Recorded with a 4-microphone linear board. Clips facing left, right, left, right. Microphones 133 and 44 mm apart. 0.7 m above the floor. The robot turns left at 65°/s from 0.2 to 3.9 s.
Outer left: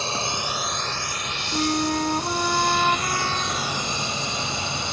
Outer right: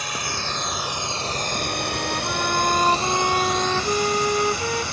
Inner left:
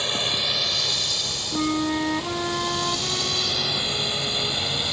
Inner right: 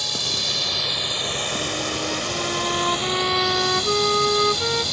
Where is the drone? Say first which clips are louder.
Outer left 2 dB, inner left 2 dB; 30° left (ahead or behind); by 4.9 s 20° left (ahead or behind).